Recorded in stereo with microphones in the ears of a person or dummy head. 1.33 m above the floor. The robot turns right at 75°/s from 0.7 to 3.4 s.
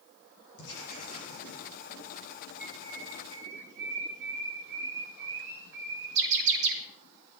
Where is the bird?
50° right (ahead or behind), 2.5 m; by 6.8 s 65° right (ahead or behind), 2.5 m.